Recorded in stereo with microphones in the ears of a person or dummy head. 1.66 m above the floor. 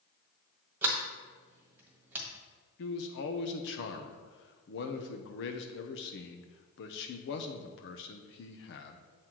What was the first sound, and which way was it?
A sliding door, 15° right (ahead or behind).